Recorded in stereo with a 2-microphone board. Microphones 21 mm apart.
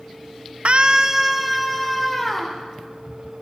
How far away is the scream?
About 0.7 m.